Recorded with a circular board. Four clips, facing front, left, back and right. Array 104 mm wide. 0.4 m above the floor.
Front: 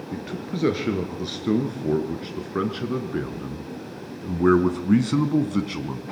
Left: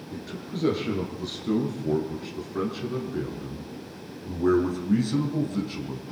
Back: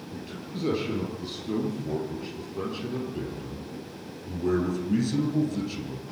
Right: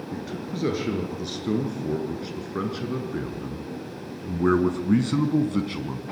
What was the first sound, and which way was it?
A man speaking, 10° right.